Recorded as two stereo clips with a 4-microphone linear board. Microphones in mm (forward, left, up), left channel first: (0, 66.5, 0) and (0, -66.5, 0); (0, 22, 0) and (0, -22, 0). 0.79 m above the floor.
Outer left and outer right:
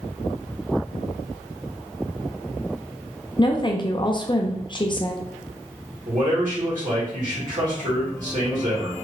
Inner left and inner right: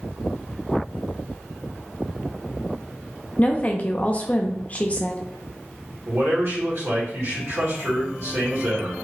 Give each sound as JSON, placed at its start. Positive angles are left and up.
{"t": 3.4, "sound": "a woman speaking", "side_deg": 35, "distance_m": 0.5}
{"t": 6.1, "sound": "a man speaking", "side_deg": -70, "distance_m": 1.8}